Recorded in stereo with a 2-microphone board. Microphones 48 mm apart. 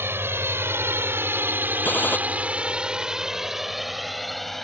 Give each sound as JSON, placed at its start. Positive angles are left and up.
{"t": 0.0, "sound": "a drone", "side_deg": -55}
{"t": 1.9, "sound": "a gunshot", "side_deg": 40}